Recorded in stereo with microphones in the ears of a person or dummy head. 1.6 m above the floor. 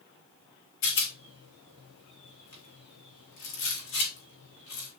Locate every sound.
0.8 s a rattle: 60° left (ahead or behind), 4 m